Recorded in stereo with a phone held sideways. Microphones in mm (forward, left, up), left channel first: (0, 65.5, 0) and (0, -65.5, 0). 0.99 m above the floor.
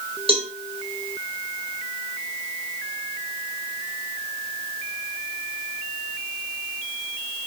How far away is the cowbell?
About 1.0 m.